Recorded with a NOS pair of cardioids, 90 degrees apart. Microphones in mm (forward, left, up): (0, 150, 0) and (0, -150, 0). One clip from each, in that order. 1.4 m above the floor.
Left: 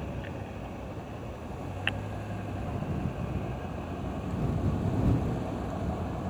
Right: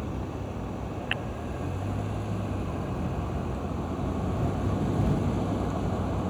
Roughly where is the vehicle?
Ahead right.